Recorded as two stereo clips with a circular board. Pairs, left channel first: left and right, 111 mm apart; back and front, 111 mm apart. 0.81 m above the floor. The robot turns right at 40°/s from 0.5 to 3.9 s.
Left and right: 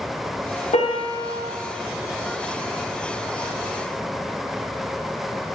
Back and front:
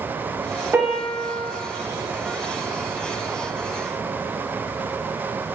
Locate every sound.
0.7 s a piano: 70° left, 0.7 m; by 1.5 s 105° left, 0.7 m